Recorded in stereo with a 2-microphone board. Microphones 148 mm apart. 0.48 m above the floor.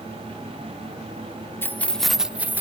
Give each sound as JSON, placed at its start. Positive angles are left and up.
{"t": 1.6, "sound": "keys jangling", "side_deg": 15, "distance_m": 0.5}